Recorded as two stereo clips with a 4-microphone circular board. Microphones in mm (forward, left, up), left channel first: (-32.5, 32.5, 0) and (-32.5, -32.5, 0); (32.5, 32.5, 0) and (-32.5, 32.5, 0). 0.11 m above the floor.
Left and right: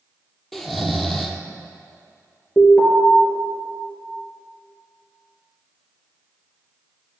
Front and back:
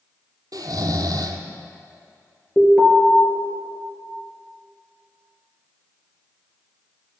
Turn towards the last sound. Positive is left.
turn(degrees=60)